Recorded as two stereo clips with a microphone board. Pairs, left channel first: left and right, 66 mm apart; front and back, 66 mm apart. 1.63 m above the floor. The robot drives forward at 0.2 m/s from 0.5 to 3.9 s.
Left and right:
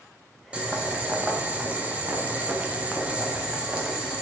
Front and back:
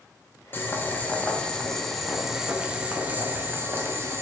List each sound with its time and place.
0.5 s boiling: 30° right, 0.6 m; by 4.2 s 155° right, 0.6 m